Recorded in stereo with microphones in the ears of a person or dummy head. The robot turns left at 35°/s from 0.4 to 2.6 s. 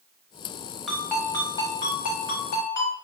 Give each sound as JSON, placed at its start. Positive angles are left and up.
{"t": 0.9, "sound": "a ringtone", "azimuth_deg": 180, "distance_m": 1.0}